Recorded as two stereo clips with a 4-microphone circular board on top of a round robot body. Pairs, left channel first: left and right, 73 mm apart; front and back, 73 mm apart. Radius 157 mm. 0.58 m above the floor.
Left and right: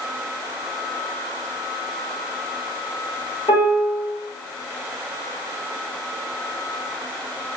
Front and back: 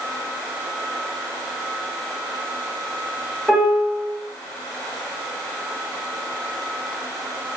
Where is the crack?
I don't hear a crack.